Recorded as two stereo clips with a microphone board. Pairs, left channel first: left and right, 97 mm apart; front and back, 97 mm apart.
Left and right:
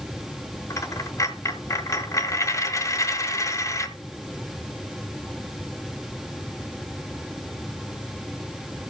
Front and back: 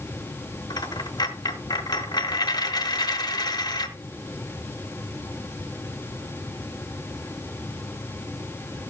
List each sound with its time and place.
0.7 s a dropped coin: 35° left, 1.4 m